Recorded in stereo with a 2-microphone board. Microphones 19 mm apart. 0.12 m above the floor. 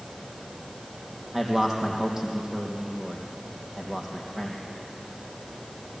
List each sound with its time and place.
1.3 s a man speaking: 25° right (ahead or behind), 4 m